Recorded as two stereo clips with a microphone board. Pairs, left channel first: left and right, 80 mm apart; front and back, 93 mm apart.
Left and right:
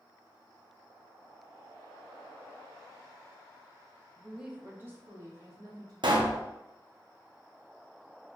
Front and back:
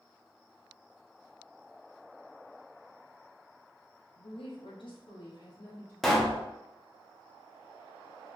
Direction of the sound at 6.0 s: 90° right.